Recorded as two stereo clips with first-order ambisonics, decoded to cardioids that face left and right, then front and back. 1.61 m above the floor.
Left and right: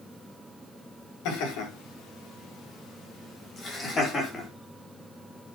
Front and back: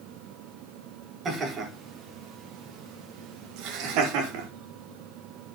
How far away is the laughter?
About 5 m.